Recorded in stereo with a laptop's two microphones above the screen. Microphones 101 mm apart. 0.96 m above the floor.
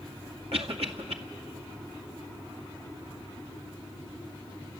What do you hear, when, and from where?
0.5 s a cough: 75° right (ahead or behind), 2 m